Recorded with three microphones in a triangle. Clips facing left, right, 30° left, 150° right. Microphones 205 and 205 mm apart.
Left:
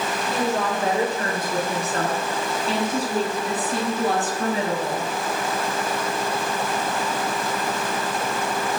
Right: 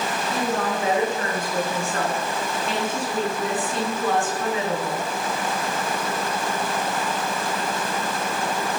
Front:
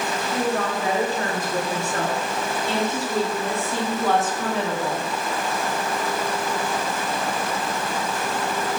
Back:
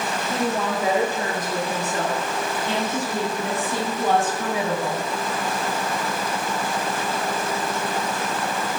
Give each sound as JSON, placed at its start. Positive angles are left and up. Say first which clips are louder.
{"t": 0.3, "sound": "a woman speaking", "louder": "left 1 dB, even", "azimuth_deg": 140, "distance_m": 5.0}